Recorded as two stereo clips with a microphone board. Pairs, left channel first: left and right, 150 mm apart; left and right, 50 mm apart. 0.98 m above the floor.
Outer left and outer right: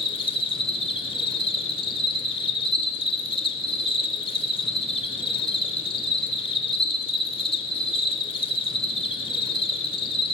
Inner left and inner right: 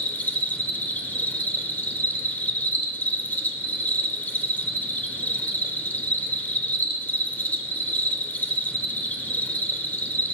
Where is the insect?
35° left (ahead or behind), 0.8 m.